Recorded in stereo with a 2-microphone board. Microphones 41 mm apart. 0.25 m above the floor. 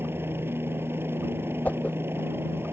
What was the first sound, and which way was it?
A helicopter, 75° right (ahead or behind).